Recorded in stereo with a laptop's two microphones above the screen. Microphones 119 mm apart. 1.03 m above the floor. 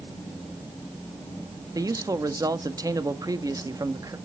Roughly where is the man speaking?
Right.